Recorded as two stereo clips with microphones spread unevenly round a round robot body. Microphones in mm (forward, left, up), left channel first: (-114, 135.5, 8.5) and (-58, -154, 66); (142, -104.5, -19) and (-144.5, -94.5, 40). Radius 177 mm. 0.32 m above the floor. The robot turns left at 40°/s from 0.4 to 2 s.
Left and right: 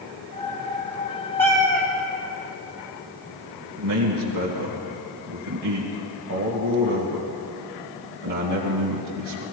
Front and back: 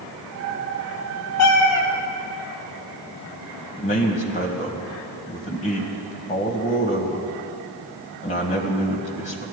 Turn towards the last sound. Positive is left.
turn(degrees=-50)